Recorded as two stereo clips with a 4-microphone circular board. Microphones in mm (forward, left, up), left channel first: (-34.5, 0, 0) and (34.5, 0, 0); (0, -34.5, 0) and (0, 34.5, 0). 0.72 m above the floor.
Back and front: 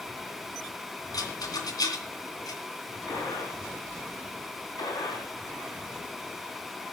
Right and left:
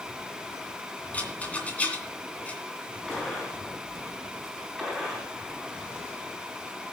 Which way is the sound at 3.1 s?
175° right.